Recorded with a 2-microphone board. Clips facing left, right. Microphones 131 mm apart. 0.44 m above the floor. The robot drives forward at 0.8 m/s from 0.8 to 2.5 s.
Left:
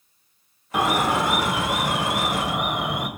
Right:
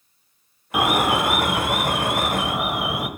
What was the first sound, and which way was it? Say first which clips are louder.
An alarm: right 1 dB; 10° right (ahead or behind).